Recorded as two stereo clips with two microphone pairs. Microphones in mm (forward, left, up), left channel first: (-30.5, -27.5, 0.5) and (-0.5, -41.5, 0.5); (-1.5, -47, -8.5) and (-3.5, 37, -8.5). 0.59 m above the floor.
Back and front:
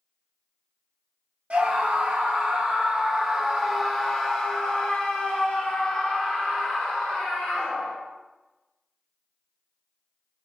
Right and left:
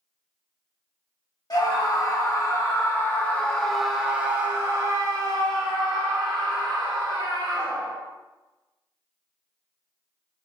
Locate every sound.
1.5 s a scream: 65° right, 1.4 m; by 7.9 s 120° left, 2.5 m